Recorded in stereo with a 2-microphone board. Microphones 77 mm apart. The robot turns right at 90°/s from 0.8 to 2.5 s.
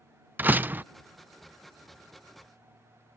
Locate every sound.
0.4 s a door slam: 25° right (ahead or behind)